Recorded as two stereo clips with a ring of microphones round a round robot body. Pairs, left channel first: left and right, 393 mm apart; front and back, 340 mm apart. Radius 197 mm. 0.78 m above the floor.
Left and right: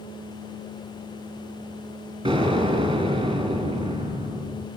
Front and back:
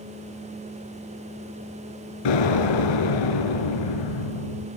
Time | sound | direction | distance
2.2 | an explosion | 10° right | 5.5 m